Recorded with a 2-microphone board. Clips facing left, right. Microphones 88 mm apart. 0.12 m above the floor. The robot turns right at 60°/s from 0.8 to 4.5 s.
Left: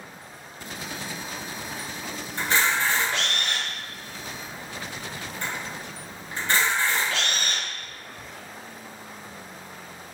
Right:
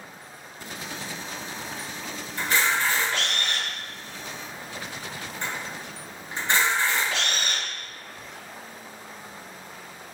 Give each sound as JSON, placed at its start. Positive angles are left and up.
{"t": 2.4, "sound": "a camera shutter", "side_deg": 35, "distance_m": 1.6}